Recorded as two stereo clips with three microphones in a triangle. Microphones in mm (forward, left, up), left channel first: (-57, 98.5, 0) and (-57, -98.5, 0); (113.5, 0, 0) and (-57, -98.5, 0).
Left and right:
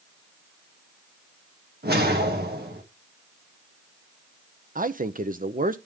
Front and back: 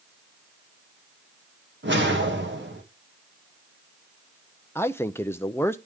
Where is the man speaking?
50° right, 0.7 m.